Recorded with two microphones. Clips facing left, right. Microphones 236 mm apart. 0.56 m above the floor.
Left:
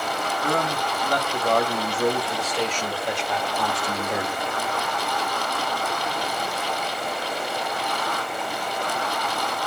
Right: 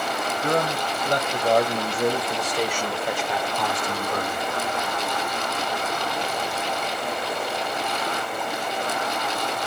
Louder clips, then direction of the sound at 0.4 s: Right 2 dB; 30° right (ahead or behind).